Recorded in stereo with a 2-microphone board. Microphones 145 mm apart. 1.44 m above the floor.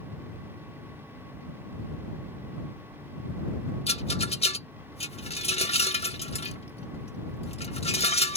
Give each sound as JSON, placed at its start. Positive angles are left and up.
{"t": 3.9, "sound": "a rattle", "side_deg": 45}